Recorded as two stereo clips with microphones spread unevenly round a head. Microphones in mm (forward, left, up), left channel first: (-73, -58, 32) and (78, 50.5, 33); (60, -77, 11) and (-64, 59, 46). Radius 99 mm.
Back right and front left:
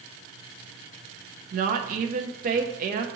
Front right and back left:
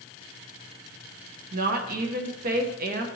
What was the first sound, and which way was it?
A woman speaking, 85° left.